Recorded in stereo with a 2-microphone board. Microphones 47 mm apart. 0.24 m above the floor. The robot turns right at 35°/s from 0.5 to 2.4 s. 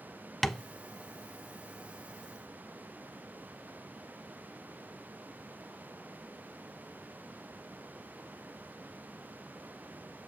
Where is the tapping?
5° left (ahead or behind), 0.7 m; by 0.6 s 10° left (ahead or behind), 0.7 m.